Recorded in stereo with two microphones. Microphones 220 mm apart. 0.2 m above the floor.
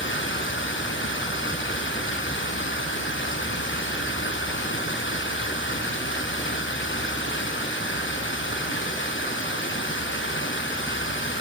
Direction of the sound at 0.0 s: 60° left (ahead or behind).